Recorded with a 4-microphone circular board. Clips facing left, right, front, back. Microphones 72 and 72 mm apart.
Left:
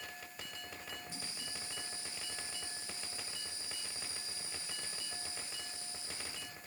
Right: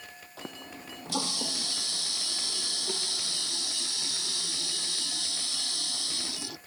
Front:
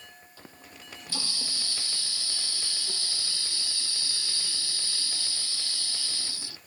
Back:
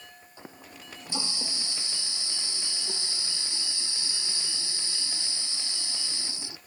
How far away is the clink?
I don't hear a clink.